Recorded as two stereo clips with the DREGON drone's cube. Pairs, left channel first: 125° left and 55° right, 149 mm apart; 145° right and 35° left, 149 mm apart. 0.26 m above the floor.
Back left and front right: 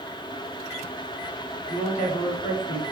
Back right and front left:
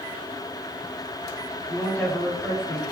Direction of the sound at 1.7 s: 140° left.